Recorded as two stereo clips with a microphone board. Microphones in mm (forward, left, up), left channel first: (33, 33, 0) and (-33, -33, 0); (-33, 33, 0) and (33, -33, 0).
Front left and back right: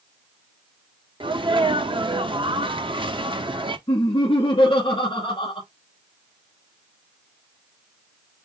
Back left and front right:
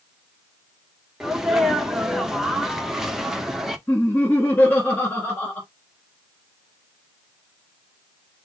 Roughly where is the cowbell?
No cowbell in this recording.